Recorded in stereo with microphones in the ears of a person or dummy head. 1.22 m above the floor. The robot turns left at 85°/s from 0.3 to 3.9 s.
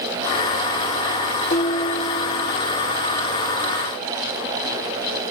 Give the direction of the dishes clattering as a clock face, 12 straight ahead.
8 o'clock.